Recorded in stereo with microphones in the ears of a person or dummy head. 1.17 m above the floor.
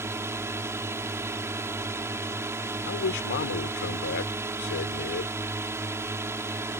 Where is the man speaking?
60° left (ahead or behind).